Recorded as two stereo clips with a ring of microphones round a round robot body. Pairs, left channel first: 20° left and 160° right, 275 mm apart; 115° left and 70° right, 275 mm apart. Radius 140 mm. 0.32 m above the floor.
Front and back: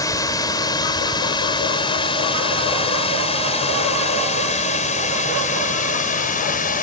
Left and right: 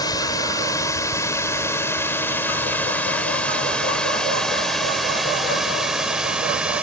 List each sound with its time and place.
0.0 s a drone: 70° left; by 6.8 s 15° left